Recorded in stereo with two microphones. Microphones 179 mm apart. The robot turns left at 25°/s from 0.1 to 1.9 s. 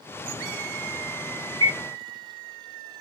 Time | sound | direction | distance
1.6 | a bird | 30° right (ahead or behind) | 0.9 m